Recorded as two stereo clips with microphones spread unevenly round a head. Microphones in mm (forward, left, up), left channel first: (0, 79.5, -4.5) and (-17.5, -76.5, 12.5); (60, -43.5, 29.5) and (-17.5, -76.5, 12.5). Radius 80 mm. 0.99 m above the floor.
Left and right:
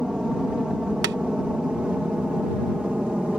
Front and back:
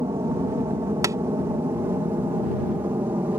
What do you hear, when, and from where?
0.0 s an aircraft: 175° left; by 3.4 s straight behind
1.0 s tapping: 105° right